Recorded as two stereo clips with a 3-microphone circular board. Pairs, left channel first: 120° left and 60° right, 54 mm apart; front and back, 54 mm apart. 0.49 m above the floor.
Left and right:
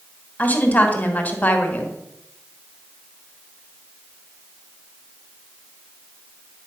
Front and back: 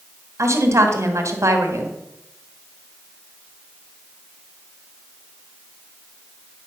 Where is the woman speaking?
Straight behind, 1.6 m.